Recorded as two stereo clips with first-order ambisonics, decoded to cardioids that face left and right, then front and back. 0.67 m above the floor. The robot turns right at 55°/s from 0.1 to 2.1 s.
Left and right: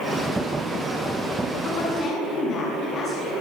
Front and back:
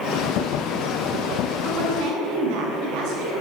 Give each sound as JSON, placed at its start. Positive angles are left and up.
{"t": 1.6, "sound": "a woman speaking", "azimuth_deg": 125, "distance_m": 8.0}